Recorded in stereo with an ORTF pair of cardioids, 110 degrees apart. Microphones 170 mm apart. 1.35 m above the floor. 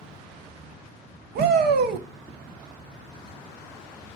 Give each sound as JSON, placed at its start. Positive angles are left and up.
{"t": 1.4, "sound": "a shout", "azimuth_deg": -70, "distance_m": 0.8}